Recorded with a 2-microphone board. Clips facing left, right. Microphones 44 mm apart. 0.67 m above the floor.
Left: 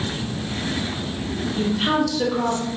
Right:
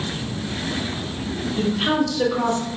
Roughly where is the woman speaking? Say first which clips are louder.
Even; centre.